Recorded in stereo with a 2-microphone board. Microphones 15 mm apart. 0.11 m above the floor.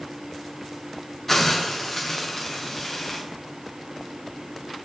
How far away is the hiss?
About 4.5 m.